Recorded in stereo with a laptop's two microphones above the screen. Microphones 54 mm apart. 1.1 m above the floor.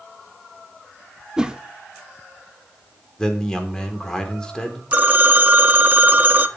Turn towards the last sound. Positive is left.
turn(degrees=-40)  # may be behind; listen again after turning